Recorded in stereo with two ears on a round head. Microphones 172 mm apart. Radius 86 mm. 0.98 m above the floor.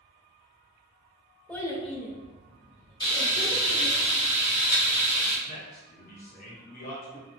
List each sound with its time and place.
1.5 s a child speaking: 5° left (ahead or behind), 0.5 m; by 4.0 s 75° left (ahead or behind), 1.3 m
3.0 s frying: 25° left (ahead or behind), 1.1 m
5.5 s a man speaking: 45° left (ahead or behind), 1.0 m